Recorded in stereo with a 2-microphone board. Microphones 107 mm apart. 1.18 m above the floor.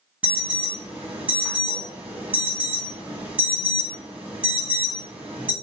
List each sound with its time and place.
0.2 s an alarm: 15° right (ahead or behind), 1.1 m